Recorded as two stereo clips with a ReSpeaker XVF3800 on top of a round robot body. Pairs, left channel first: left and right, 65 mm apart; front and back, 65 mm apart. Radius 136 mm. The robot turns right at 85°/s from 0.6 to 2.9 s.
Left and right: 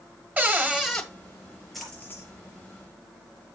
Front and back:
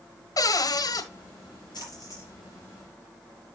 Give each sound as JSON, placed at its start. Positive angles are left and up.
{"t": 0.4, "sound": "a cupboard door", "azimuth_deg": -25, "distance_m": 1.6}
{"t": 1.7, "sound": "a splash", "azimuth_deg": 0, "distance_m": 4.5}